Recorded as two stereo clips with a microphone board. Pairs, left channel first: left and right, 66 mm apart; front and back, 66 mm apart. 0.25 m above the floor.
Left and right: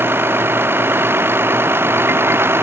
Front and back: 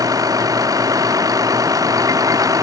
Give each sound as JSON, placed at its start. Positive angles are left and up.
{"t": 0.0, "sound": "a vehicle", "azimuth_deg": -145}